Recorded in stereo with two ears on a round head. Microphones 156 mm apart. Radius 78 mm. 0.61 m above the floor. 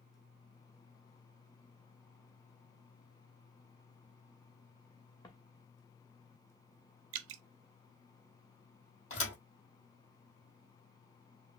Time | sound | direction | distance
5.2 | footsteps | 20° left (ahead or behind) | 2.5 m
7.1 | dripping | 85° right | 0.5 m
9.1 | a thud | 45° left (ahead or behind) | 3 m